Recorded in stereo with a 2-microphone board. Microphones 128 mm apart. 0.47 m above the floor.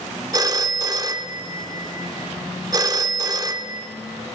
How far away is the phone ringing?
About 0.5 m.